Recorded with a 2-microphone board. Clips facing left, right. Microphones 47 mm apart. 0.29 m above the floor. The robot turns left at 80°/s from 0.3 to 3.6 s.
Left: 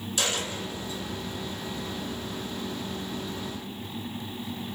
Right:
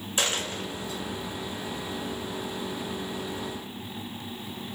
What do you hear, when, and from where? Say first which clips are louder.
0.2 s a dropped coin: right 1 dB; 30° right (ahead or behind), 1.0 m; by 1.0 s 80° right, 1.0 m